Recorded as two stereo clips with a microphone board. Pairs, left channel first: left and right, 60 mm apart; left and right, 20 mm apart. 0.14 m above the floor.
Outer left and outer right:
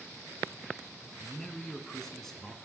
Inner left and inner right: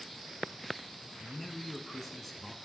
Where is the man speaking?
5° left (ahead or behind), 1.0 m.